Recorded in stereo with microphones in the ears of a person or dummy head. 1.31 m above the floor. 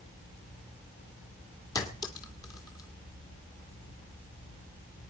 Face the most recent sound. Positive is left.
turn(degrees=20)  # may be behind; listen again after turning